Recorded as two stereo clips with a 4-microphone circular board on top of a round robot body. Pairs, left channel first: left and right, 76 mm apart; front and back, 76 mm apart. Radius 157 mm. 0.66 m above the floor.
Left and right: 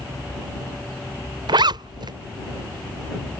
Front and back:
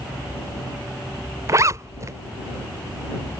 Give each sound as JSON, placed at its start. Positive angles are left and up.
{"t": 1.5, "sound": "a zipper", "azimuth_deg": -125}